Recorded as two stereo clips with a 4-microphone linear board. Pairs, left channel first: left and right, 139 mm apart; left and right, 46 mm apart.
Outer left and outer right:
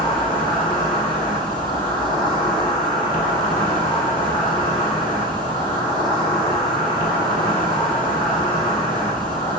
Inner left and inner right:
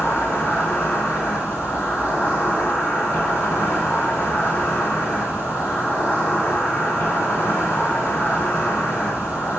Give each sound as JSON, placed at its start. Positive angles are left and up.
{"t": 0.0, "sound": "an insect", "side_deg": 70, "distance_m": 0.7}